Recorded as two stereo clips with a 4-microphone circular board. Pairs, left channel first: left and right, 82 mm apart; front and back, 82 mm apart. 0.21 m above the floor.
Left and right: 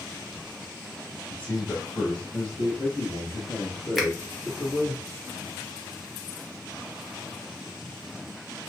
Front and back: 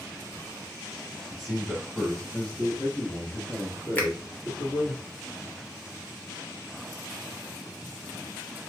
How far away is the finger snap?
About 0.9 m.